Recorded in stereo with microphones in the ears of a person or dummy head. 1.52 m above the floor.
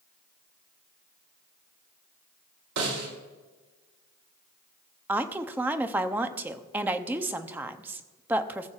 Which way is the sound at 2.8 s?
80° right.